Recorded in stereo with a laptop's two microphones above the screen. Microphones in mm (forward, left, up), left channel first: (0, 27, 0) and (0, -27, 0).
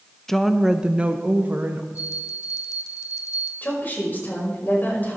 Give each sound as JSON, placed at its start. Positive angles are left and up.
{"t": 0.3, "sound": "a woman speaking", "side_deg": 10, "distance_m": 0.8}
{"t": 1.9, "sound": "a bell", "side_deg": 65, "distance_m": 1.1}
{"t": 3.6, "sound": "a woman speaking", "side_deg": 30, "distance_m": 4.5}